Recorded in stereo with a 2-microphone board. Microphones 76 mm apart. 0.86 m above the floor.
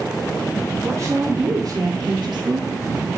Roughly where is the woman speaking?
Right.